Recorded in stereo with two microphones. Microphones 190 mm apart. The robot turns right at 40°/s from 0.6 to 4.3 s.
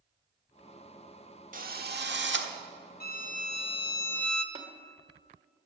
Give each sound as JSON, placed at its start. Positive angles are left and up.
{"t": 1.5, "sound": "a drill", "azimuth_deg": -130, "distance_m": 1.2}
{"t": 3.0, "sound": "a violin", "azimuth_deg": 120, "distance_m": 1.1}
{"t": 4.5, "sound": "tapping", "side_deg": -35, "distance_m": 1.4}